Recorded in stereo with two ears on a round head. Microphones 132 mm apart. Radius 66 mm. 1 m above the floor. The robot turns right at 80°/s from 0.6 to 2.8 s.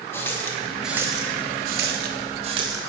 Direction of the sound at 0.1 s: 15° left (ahead or behind).